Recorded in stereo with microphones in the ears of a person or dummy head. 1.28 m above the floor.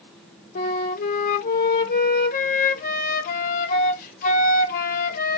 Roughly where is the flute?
Left.